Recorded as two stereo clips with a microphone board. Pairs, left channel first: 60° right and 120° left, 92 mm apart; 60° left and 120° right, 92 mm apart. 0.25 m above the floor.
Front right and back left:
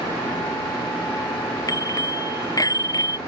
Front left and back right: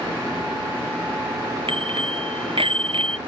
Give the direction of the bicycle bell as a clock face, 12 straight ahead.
4 o'clock.